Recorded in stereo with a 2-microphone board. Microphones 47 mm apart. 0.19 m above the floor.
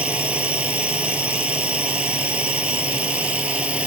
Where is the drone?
25° right (ahead or behind).